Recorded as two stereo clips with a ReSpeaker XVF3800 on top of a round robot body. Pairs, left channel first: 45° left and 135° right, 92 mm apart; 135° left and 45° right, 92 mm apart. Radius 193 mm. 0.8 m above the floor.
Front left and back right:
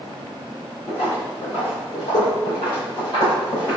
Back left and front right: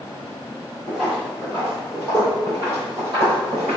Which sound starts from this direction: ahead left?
Footsteps, at 0.9 s.